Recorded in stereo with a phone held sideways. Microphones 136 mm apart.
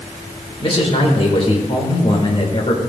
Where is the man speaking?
45° left (ahead or behind), 2.5 m.